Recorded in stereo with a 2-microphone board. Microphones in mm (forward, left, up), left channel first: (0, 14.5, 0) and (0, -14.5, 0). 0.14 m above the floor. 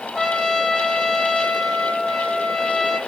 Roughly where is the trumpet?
Centre.